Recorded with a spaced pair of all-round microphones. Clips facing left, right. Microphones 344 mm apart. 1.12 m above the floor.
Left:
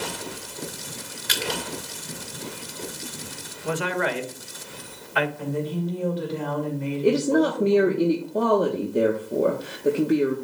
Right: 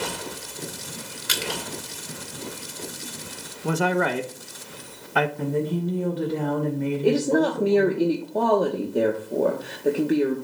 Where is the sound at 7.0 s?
5° left (ahead or behind), 1.1 m.